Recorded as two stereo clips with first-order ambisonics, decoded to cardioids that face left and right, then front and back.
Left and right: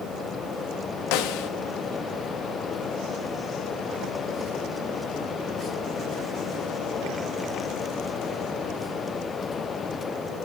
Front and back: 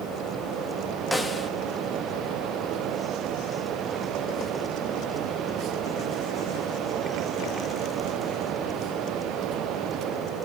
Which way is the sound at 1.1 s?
90° left.